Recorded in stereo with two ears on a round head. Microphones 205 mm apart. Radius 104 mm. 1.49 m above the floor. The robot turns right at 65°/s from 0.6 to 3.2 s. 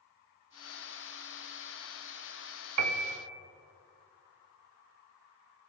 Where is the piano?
80° right, 0.8 m; by 3.2 s 65° right (ahead or behind), 0.8 m.